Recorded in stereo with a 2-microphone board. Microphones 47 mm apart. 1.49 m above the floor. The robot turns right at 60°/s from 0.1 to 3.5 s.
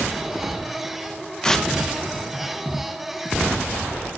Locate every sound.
1.4 s tearing paper: 15° left (ahead or behind), 1.1 m; by 1.7 s centre (ahead or behind), 1.1 m